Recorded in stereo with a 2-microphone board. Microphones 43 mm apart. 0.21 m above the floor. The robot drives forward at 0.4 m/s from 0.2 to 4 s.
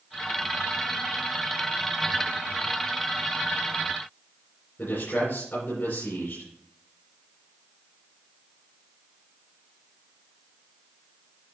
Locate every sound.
4.8 s a man speaking: 55° left (ahead or behind), 3.5 m